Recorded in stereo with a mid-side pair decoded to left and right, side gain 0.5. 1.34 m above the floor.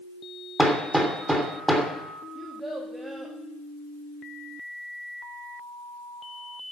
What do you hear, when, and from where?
0.6 s hammering: 5° right, 3 m
2.4 s a child speaking: 15° right, 1.8 m